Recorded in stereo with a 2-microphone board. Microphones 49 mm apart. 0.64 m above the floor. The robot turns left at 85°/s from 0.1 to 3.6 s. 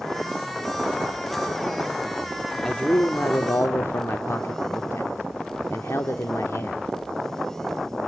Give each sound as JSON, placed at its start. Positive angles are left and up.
{"t": 2.6, "sound": "a man speaking", "azimuth_deg": 170, "distance_m": 1.2}